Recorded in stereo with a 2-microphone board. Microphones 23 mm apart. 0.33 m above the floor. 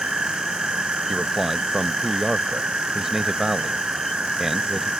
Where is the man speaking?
20° right (ahead or behind).